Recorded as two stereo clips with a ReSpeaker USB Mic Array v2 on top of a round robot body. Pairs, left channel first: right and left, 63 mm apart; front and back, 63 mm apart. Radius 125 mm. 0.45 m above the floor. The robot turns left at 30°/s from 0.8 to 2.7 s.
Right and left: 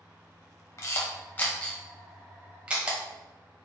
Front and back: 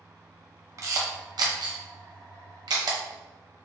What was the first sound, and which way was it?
A camera shutter, 140° right.